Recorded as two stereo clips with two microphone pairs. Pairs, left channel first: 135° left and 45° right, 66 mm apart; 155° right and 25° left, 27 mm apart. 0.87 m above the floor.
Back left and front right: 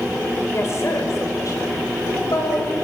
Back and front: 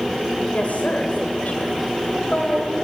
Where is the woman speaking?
175° right, 4 m; by 2.7 s 155° left, 4.5 m.